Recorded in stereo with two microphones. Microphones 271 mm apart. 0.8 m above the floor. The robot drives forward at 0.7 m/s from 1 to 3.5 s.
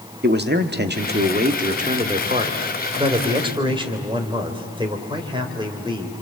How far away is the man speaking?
About 1.4 m.